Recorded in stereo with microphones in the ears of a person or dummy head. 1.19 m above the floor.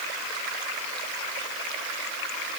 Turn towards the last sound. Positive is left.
No sound to turn to.